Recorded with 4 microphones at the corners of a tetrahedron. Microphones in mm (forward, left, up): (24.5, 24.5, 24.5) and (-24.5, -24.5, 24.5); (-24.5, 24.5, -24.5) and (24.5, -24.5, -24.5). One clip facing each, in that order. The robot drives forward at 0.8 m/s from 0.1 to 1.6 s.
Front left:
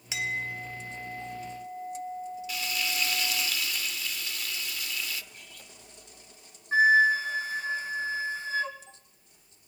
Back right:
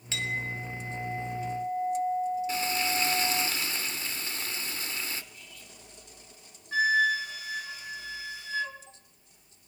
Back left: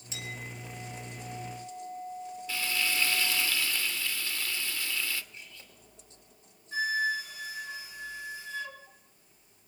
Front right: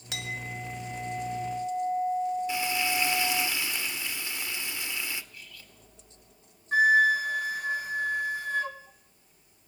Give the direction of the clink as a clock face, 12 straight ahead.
1 o'clock.